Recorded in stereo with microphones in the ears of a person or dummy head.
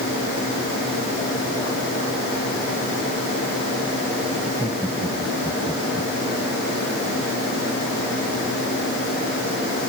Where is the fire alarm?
No fire alarm in this recording.